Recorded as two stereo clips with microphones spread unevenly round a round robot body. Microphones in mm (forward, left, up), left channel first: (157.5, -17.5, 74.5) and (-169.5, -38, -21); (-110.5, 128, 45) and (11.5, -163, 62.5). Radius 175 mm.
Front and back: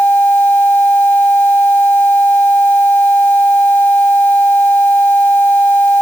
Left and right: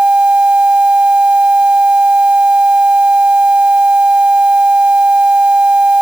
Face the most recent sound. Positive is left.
No sound to turn to.